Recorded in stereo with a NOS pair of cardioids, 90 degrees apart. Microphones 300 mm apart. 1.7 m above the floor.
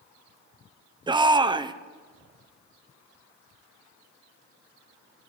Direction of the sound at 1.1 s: 15° right.